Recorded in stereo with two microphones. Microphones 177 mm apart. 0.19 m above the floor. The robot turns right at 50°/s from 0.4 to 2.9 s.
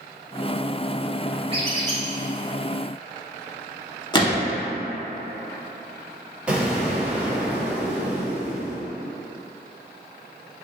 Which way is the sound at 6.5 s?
5° right (ahead or behind).